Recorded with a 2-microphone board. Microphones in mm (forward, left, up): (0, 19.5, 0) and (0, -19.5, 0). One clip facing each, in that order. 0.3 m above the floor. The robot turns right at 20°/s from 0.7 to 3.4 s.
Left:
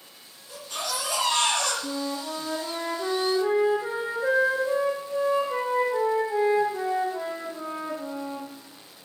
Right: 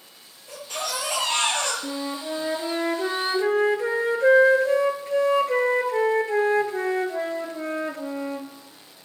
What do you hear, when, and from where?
0.5 s a baby crying: 75° right (ahead or behind), 5 m; by 1.7 s 55° right (ahead or behind), 5 m
1.8 s a flute: 140° right, 1.9 m; by 8.5 s 110° right, 1.9 m